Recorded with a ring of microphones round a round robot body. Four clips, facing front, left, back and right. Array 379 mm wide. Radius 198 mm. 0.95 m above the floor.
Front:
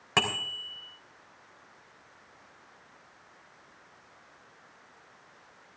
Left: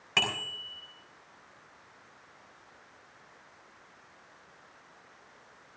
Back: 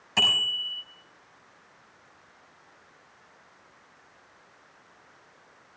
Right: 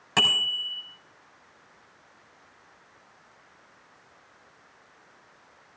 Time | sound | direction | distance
0.2 | a bicycle bell | 15° right | 3.5 m